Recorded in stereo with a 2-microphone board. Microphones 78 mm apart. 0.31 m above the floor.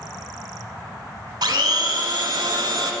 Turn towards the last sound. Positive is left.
turn(degrees=-70)  # may be behind; listen again after turning